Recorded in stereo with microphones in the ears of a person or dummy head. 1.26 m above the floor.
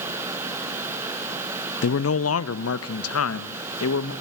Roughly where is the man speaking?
Left.